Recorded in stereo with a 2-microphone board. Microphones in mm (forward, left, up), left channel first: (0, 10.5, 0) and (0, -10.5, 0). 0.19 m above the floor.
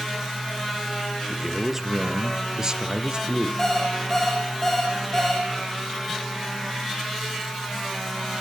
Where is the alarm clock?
20° left (ahead or behind), 4.5 m.